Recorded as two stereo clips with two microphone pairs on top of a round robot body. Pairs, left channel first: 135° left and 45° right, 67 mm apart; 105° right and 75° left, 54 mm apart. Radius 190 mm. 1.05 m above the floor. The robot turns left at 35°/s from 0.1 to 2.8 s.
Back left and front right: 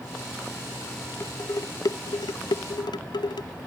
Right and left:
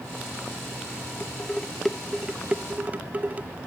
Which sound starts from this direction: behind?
Dishes clattering, at 1.2 s.